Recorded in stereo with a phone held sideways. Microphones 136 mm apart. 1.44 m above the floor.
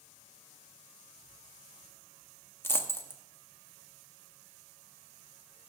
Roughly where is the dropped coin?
Centre.